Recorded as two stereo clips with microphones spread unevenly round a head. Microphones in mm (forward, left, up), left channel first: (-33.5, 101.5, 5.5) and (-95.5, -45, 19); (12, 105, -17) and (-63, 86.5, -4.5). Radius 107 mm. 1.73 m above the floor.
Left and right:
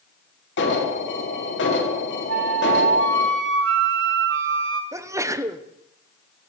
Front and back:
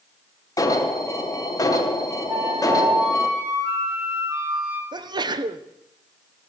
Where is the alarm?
60° left, 2.5 m.